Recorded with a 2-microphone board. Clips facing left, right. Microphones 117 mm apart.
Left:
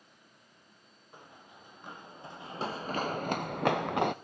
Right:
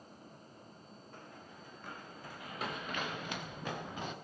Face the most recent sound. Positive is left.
turn(degrees=65)  # may be behind; listen again after turning